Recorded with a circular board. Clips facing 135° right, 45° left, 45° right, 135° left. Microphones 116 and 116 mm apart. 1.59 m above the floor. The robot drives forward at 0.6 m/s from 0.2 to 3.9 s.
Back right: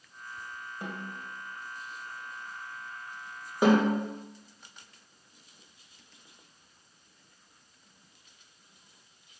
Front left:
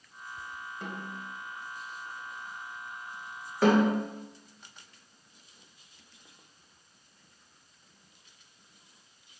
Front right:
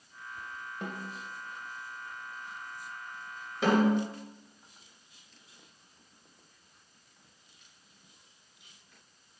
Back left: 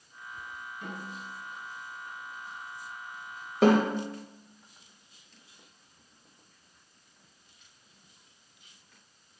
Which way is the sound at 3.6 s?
150° left.